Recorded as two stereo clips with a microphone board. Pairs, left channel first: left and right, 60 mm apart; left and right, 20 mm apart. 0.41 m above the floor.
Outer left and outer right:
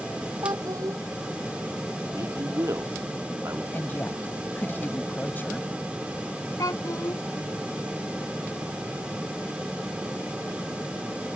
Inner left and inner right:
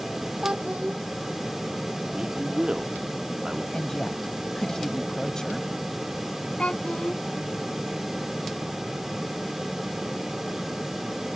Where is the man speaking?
55° right (ahead or behind).